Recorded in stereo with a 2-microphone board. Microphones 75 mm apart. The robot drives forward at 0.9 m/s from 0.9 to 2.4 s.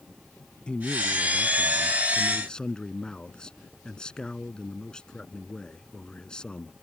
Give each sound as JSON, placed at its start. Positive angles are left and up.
{"t": 0.7, "sound": "a man speaking", "side_deg": 10}